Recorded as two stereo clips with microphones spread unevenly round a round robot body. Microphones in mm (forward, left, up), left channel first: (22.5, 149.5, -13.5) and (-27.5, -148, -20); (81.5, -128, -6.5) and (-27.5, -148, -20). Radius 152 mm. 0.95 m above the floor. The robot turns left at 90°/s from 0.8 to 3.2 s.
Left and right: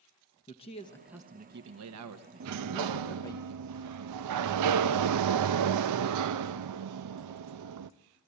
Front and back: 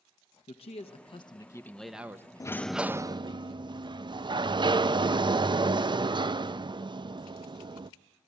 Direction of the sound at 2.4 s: 55° right.